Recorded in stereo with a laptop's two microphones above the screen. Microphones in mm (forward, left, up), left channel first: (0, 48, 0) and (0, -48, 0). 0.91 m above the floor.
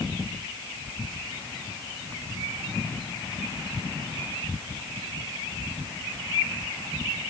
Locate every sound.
Only background noise.